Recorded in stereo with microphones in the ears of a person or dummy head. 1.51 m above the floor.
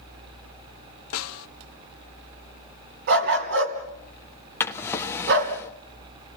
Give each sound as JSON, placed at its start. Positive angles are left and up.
{"t": 1.1, "sound": "a snare drum", "side_deg": 75, "distance_m": 0.9}
{"t": 3.1, "sound": "a dog barking", "side_deg": -60, "distance_m": 3.0}
{"t": 4.6, "sound": "a drawer", "side_deg": 10, "distance_m": 1.3}